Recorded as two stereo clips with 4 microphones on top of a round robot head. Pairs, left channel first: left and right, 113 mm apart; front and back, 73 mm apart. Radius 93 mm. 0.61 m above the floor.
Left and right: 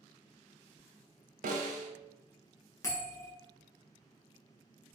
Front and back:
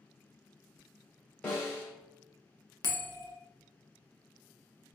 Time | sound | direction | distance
1.4 | a snare drum | 80° right | 0.6 m
2.8 | a bell | 25° left | 0.7 m